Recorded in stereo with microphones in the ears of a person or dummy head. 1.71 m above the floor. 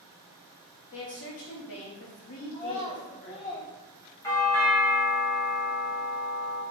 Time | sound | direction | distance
0.9 | a woman speaking | 65° left (ahead or behind) | 1.1 m
2.5 | a child speaking | 30° left (ahead or behind) | 1.1 m
4.2 | a doorbell | 15° left (ahead or behind) | 1.5 m